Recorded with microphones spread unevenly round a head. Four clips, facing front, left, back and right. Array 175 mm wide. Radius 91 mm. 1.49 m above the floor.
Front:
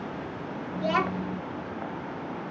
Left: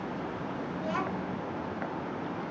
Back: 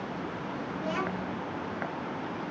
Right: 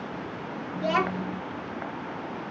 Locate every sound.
0.8 s a child speaking: 55° right, 0.7 m